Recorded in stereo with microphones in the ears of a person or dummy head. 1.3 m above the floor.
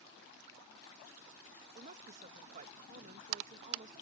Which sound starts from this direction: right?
A woman speaking, at 1.8 s.